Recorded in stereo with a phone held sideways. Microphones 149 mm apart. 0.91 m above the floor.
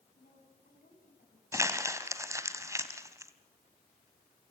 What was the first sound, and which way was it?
A woman speaking, 70° left (ahead or behind).